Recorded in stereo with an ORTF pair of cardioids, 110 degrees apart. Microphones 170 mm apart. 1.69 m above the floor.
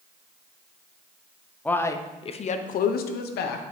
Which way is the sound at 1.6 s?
10° left.